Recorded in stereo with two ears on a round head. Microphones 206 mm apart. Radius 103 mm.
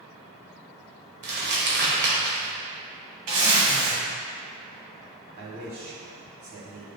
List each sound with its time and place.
1.2 s crumpling: 50° right (ahead or behind), 1.5 m
3.3 s a zipper: 90° right, 1.9 m
5.4 s a man speaking: 45° right (ahead or behind), 2 m